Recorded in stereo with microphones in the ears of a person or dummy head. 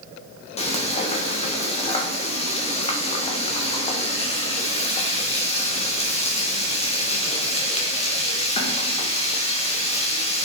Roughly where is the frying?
Left.